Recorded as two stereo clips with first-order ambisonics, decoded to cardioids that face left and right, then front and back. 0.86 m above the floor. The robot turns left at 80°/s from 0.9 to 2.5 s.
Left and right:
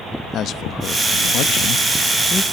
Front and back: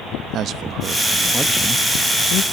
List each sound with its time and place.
0.3 s a man speaking: 135° left, 0.8 m; by 2.4 s 10° left, 0.8 m